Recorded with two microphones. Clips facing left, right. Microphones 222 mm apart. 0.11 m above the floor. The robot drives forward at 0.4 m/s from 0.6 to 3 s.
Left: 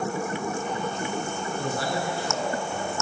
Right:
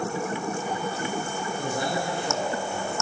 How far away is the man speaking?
About 1.1 m.